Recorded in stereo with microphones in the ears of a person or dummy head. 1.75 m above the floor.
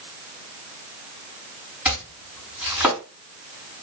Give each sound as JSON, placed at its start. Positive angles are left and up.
{"t": 1.9, "sound": "chopping", "side_deg": -15, "distance_m": 5.5}